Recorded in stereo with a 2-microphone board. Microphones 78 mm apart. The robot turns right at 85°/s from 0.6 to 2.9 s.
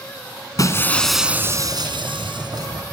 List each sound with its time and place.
0.6 s breaking glass: 135° left, 2 m; by 2.7 s 50° right, 2 m